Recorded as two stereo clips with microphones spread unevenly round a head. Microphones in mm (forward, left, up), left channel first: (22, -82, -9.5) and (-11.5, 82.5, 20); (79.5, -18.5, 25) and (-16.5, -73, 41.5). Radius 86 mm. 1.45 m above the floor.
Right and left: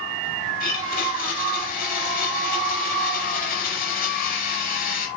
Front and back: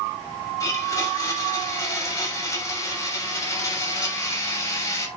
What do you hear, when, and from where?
0.6 s a blender: 35° right, 6 m